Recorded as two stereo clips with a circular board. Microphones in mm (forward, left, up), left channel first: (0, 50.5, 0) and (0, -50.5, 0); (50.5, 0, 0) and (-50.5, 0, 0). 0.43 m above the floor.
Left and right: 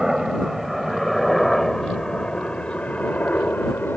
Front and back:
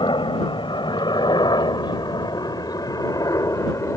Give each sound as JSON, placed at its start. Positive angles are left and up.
{"t": 0.0, "sound": "a helicopter", "azimuth_deg": -5}